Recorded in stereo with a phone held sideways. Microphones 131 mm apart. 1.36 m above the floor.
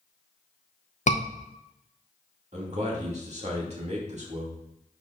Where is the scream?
60° left (ahead or behind), 0.7 m.